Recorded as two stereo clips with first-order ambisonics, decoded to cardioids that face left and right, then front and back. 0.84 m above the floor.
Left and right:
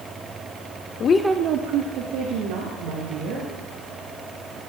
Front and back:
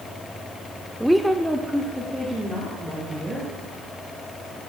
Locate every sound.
1.0 s a woman speaking: 90° left, 0.6 m; by 3.5 s 90° right, 3.5 m